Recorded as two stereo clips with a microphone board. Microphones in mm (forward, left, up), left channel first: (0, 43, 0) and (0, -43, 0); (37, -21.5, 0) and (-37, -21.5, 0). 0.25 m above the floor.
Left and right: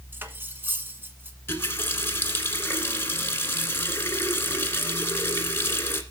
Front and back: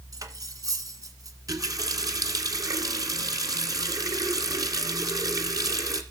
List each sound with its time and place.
0.1 s cutlery clinking: 155° right, 1.5 m
1.5 s a running tap: 150° left, 1.8 m